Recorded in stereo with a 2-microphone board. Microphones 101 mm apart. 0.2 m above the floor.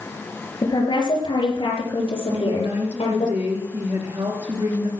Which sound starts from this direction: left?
A woman speaking, at 0.6 s.